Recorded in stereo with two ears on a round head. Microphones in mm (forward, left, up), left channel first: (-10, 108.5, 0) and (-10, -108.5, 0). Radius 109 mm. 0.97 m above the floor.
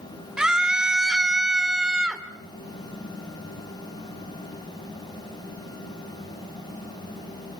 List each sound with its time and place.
0.4 s a scream: 5° right (ahead or behind), 3 m